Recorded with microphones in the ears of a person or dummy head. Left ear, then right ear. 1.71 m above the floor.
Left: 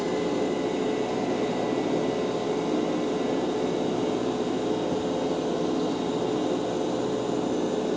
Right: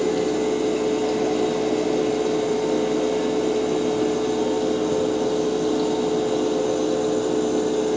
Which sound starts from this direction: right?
A fan, at 0.0 s.